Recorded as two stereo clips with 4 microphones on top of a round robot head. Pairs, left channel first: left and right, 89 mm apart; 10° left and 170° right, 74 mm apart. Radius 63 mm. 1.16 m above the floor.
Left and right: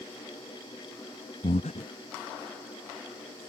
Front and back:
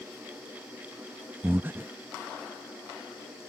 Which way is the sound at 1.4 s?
130° left.